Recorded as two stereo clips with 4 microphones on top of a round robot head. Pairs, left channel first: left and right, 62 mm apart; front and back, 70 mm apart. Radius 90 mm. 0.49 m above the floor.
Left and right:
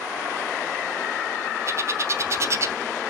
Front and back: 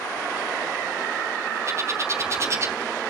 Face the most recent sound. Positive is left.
turn(degrees=-130)